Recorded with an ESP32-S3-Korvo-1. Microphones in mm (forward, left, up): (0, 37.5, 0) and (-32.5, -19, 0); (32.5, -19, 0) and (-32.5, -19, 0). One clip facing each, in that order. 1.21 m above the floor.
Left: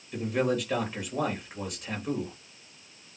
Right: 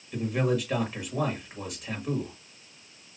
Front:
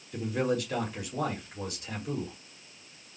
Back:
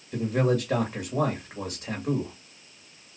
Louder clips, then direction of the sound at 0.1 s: Even, back 4 dB; 150° left.